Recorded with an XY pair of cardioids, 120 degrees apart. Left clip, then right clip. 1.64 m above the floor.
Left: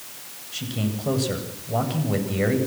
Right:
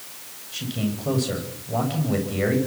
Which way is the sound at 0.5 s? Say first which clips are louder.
Even; 5° left.